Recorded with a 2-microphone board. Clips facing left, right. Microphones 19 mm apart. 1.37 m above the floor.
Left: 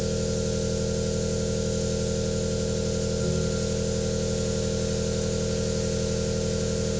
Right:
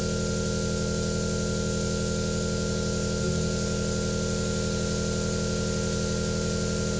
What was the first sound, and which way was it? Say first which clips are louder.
An engine running: left 1 dB; 30° right (ahead or behind).